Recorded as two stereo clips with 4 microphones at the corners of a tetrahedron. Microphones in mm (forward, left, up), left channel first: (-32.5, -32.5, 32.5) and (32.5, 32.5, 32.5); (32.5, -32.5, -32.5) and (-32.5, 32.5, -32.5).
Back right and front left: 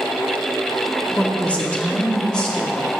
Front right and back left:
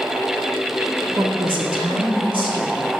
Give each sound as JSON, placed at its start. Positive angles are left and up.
{"t": 1.1, "sound": "a woman speaking", "azimuth_deg": 155, "distance_m": 2.0}